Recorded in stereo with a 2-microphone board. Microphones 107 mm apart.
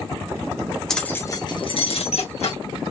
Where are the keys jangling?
5° left (ahead or behind), 1.1 m; by 2.6 s 80° left, 2 m.